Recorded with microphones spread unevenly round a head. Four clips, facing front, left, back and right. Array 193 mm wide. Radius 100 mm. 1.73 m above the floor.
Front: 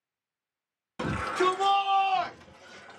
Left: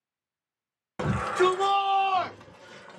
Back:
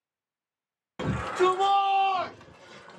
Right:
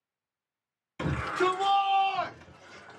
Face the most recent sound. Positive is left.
turn(degrees=125)